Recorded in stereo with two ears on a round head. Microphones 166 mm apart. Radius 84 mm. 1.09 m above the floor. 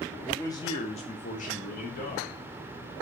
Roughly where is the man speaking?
Centre.